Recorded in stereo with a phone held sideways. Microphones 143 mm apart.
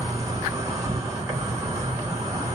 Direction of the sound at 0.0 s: 25° right (ahead or behind).